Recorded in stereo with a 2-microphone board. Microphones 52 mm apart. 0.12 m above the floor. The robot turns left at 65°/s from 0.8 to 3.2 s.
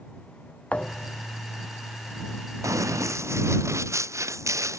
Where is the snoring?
No snoring in this recording.